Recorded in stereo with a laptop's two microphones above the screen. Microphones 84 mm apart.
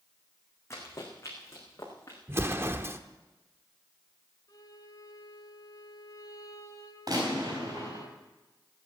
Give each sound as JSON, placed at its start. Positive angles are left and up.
{"t": 0.7, "sound": "running footsteps", "side_deg": 30, "distance_m": 4.5}
{"t": 2.3, "sound": "an explosion", "side_deg": -30, "distance_m": 0.8}
{"t": 4.5, "sound": "a violin", "side_deg": 50, "distance_m": 3.0}
{"t": 7.1, "sound": "a gunshot", "side_deg": -50, "distance_m": 4.0}